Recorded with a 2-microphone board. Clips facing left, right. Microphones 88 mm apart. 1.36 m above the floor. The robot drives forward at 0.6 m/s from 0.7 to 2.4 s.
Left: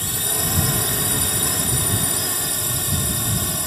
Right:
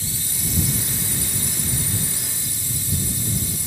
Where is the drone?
60° left (ahead or behind).